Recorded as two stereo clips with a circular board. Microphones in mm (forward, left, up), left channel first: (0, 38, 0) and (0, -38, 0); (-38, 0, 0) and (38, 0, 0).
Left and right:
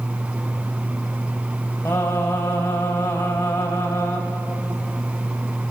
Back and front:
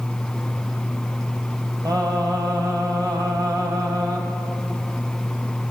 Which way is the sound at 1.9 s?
35° left.